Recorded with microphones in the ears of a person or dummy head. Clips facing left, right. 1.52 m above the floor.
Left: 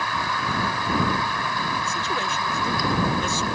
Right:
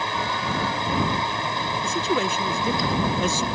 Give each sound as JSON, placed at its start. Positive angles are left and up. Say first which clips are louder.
{"t": 0.0, "sound": "a fan", "louder": "right 1 dB", "side_deg": -20}
{"t": 1.8, "sound": "a man speaking", "louder": "right 5 dB", "side_deg": -65}